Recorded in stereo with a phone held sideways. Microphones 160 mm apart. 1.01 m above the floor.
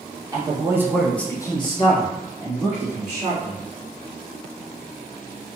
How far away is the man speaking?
About 1.1 m.